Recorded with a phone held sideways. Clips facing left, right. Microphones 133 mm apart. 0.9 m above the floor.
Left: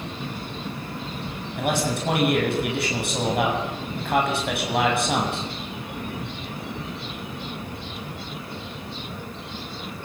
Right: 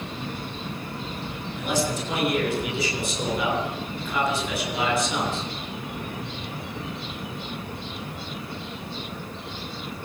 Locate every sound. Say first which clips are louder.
1.6 s a man speaking: left 2 dB; 65° left (ahead or behind), 8 m